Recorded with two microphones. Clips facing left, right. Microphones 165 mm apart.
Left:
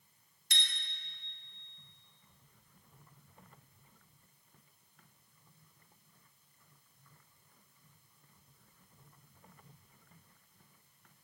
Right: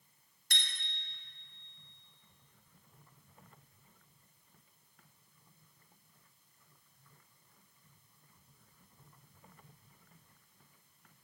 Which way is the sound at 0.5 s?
55° right (ahead or behind).